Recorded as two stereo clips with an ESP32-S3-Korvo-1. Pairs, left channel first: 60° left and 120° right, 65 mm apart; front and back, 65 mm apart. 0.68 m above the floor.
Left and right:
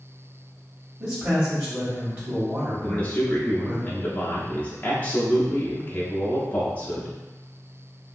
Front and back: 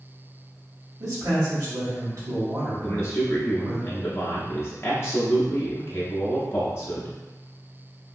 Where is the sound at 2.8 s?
10° left, 0.6 m.